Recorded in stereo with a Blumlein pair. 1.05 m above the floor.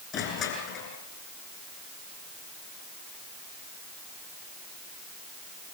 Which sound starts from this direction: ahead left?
Crushing, at 0.1 s.